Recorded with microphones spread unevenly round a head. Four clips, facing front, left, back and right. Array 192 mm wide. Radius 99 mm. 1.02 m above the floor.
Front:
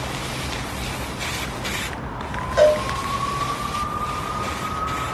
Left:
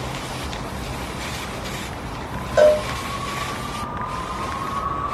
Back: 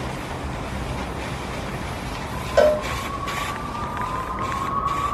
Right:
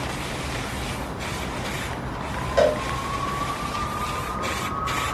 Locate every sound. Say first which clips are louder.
2.6 s a cowbell: left 6 dB, front 1 dB; 130° left, 1.0 m